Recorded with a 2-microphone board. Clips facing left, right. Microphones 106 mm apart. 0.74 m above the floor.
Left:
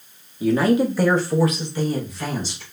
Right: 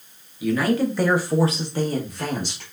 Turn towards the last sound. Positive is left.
turn(degrees=-60)  # may be behind; listen again after turning